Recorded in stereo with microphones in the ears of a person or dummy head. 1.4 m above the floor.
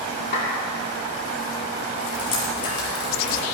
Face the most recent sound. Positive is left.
turn(degrees=70)  # may be behind; listen again after turning